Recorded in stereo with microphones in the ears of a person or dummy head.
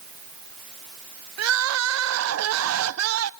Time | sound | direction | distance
1.4 | crying | 75° right (ahead or behind) | 0.6 m